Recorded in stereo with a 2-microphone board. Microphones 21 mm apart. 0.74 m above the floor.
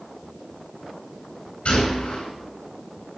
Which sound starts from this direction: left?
A gunshot, at 1.6 s.